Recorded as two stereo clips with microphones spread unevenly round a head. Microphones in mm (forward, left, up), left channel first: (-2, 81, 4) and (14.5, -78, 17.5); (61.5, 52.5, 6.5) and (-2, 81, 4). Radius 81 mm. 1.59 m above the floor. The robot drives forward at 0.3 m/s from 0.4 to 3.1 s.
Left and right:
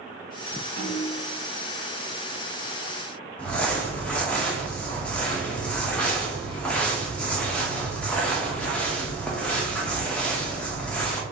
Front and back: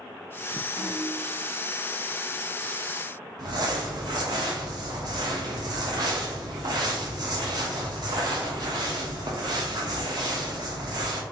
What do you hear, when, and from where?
0.8 s a snare drum: 120° right, 1.8 m; by 1.3 s 125° right, 1.9 m
3.4 s crumpling: straight behind, 0.5 m